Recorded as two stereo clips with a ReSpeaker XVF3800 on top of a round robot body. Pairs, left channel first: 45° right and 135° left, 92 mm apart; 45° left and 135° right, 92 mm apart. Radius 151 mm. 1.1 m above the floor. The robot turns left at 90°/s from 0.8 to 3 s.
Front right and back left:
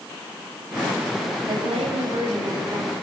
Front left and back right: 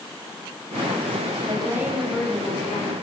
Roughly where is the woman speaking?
Behind.